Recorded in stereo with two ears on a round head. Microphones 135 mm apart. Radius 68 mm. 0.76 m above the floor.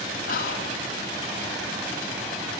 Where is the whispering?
60° left (ahead or behind), 0.7 m.